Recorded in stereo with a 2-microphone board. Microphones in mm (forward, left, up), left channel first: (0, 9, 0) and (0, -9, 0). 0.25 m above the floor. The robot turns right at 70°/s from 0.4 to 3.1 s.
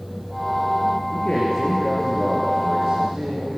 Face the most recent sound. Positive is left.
turn(degrees=-120)